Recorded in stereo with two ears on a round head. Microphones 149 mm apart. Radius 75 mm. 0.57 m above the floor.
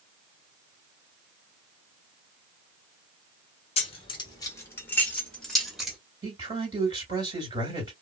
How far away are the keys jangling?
About 1.2 m.